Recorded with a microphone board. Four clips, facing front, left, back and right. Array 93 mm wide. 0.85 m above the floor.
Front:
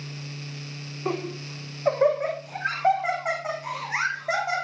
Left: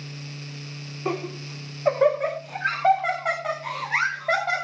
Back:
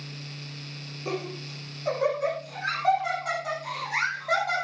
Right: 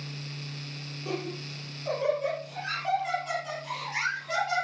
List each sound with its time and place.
1.1 s laughter: 50° left, 8.5 m; by 4.6 s 70° left, 5 m